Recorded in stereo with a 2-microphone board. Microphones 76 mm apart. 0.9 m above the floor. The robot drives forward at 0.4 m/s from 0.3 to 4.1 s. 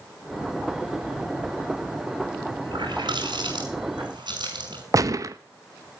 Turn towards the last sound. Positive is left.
turn(degrees=-50)  # may be behind; listen again after turning